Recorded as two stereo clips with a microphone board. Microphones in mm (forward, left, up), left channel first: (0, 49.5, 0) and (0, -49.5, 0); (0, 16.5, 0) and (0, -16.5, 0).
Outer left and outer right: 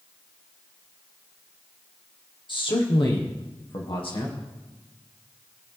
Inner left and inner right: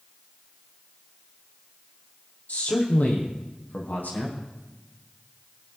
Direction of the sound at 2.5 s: 55° left (ahead or behind).